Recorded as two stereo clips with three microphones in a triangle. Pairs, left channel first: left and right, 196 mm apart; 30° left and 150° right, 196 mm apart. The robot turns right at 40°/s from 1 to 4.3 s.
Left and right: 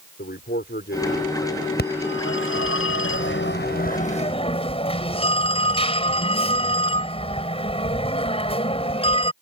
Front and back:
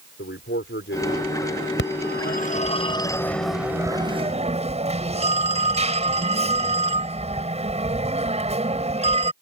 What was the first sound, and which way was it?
A man speaking, 55° left.